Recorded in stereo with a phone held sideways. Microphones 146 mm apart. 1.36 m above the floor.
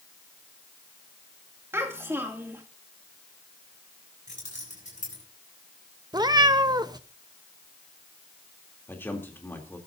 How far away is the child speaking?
About 2.5 m.